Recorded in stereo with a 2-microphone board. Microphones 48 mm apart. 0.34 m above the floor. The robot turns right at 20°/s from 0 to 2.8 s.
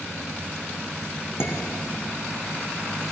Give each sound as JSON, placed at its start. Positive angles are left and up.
{"t": 1.4, "sound": "dishes clattering", "side_deg": 55, "distance_m": 1.6}